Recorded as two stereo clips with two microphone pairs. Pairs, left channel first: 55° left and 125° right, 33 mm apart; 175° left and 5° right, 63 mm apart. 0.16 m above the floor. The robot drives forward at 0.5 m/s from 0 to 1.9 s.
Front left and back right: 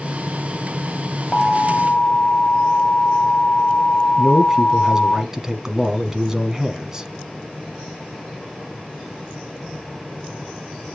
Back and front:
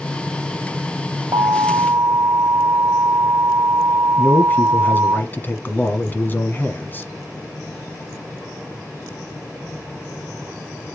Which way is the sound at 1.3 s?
15° right.